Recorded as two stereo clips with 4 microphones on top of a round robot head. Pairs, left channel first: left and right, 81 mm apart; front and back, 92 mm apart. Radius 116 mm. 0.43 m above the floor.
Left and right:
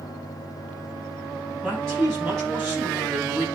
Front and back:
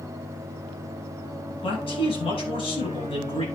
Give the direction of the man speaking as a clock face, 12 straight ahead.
12 o'clock.